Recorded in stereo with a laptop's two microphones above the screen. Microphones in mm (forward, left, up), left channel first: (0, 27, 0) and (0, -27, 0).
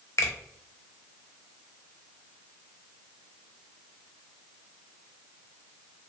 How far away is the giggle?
No giggle in this recording.